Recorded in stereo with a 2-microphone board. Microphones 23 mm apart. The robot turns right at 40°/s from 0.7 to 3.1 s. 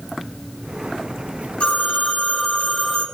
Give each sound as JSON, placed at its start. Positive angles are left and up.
{"t": 1.6, "sound": "a phone ringing", "azimuth_deg": 120, "distance_m": 3.5}